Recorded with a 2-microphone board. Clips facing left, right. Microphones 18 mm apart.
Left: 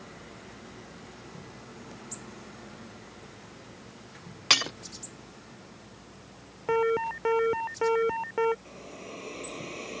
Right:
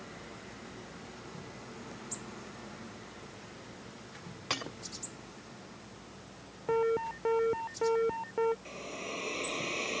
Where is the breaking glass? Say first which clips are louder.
Left 13 dB; 65° left (ahead or behind).